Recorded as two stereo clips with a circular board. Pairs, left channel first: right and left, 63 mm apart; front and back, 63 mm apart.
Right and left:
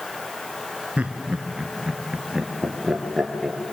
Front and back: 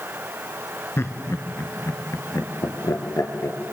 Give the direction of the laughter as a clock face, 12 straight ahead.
11 o'clock.